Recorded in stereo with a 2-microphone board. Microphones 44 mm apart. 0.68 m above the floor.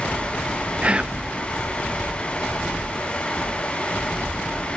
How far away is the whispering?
About 0.5 m.